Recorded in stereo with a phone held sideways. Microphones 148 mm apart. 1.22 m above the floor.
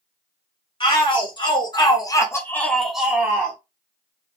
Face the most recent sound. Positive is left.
turn(degrees=-20)  # may be behind; listen again after turning